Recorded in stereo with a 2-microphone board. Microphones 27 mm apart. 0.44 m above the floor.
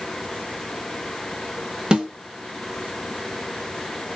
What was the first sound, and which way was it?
A snare drum, 30° right (ahead or behind).